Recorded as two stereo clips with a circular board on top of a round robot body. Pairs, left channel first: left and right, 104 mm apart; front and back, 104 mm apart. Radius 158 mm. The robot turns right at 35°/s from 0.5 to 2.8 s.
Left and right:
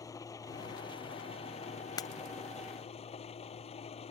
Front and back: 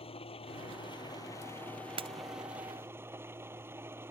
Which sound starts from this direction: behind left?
Breaking glass, at 2.0 s.